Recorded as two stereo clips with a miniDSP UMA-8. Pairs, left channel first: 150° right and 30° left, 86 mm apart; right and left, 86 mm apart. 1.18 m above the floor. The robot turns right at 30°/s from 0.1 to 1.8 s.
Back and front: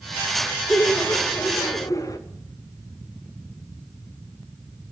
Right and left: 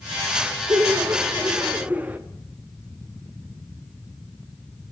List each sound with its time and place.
0.7 s laughter: 130° left, 1.3 m; by 2.2 s 160° left, 1.3 m